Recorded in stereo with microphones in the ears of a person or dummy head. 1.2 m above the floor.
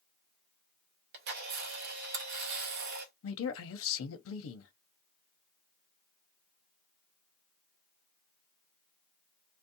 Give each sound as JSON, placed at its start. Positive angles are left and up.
{"t": 1.1, "sound": "a camera shutter", "side_deg": -50, "distance_m": 0.6}
{"t": 3.2, "sound": "a man speaking", "side_deg": 80, "distance_m": 0.7}